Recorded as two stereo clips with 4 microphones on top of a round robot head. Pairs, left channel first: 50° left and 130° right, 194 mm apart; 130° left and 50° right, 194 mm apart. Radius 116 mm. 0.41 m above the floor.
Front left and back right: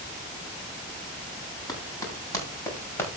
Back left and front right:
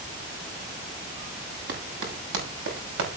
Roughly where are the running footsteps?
Ahead.